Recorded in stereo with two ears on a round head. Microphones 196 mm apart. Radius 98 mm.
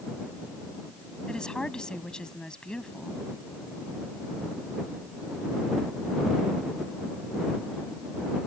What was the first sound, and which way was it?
A woman speaking, 5° left (ahead or behind).